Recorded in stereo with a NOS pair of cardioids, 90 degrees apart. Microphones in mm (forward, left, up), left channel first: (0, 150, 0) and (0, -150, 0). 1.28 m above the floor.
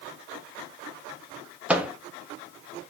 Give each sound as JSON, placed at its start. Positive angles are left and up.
{"t": 1.7, "sound": "a microwave", "azimuth_deg": -5, "distance_m": 0.5}